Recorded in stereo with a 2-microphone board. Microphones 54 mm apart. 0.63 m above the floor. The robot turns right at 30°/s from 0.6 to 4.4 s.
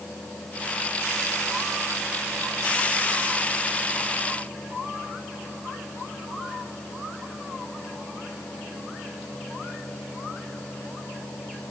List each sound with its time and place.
Only background noise.